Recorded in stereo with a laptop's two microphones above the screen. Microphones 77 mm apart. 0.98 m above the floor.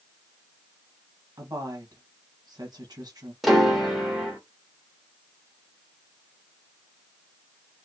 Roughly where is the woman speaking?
Right.